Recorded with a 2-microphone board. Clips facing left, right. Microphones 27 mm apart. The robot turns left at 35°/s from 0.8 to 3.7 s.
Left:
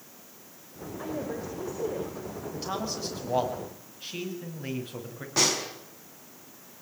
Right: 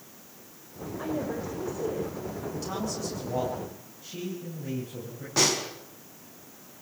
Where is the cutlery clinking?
No cutlery clinking in this recording.